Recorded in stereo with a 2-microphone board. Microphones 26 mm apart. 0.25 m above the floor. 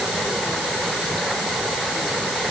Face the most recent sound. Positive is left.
No sound to turn to.